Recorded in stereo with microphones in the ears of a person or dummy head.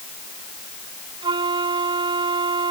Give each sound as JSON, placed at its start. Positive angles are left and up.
{"t": 1.2, "sound": "a flute", "side_deg": -35}